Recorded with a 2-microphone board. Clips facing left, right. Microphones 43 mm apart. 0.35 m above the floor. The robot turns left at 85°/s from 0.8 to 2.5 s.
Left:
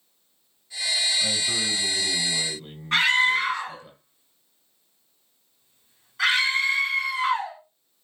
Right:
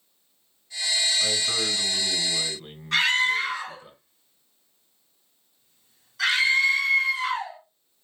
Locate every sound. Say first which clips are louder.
1.2 s a man speaking: even; 45° right, 1.8 m; by 3.9 s 155° right, 1.8 m
2.9 s a scream: left 2 dB; 25° left (ahead or behind), 2.5 m